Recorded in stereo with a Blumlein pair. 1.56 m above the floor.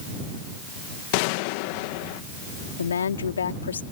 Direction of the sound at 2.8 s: 70° left.